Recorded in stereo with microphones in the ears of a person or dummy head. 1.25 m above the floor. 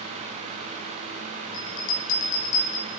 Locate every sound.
1.5 s a bell: 70° left (ahead or behind), 2.5 m